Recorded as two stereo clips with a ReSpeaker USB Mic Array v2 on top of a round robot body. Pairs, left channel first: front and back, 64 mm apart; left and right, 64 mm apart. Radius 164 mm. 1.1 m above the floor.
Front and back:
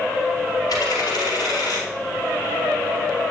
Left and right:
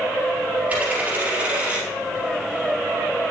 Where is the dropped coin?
20° right, 3 m.